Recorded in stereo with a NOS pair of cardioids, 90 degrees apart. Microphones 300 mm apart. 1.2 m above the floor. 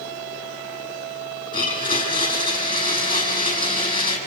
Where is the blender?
30° left, 9 m.